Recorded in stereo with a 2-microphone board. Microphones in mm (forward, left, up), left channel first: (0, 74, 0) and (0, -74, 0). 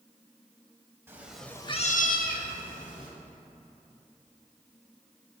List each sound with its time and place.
1.1 s a cat meowing: 15° right (ahead or behind), 0.9 m; by 3.1 s 65° left (ahead or behind), 1.7 m